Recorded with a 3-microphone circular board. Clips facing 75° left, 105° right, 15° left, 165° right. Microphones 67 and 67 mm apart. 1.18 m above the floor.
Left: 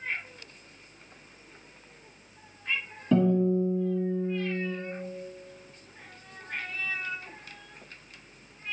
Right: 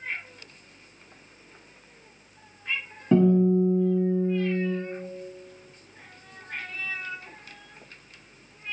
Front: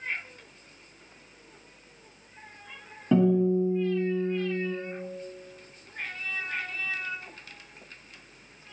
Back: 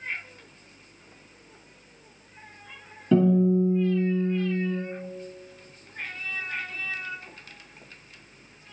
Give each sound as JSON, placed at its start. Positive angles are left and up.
{"t": 3.1, "sound": "a guitar", "azimuth_deg": -40, "distance_m": 1.3}